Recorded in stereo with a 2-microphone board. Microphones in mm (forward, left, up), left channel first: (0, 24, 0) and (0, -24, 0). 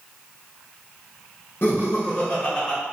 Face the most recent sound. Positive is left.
turn(degrees=0)  # may be behind; listen again after turning